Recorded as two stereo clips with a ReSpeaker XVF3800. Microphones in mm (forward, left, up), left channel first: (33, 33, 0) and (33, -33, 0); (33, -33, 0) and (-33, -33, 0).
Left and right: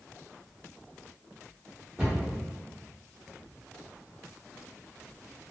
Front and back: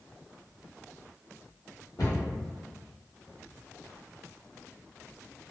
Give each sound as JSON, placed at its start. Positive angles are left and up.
{"t": 2.0, "sound": "a cupboard door", "azimuth_deg": -15, "distance_m": 1.3}